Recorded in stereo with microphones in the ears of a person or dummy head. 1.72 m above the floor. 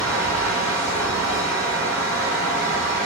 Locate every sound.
0.0 s a fan: 10° left (ahead or behind), 1.1 m